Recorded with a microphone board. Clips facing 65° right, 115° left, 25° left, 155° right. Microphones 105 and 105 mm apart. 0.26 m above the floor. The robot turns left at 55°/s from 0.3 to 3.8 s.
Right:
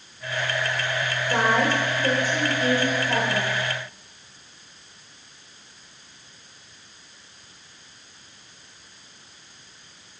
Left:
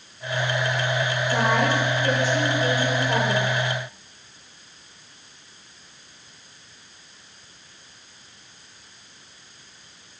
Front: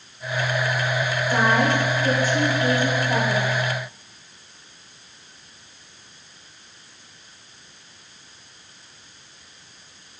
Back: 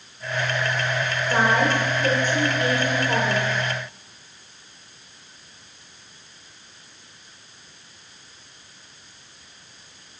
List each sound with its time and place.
1.3 s a woman speaking: 95° right, 2.5 m; by 3.5 s 145° left, 2.5 m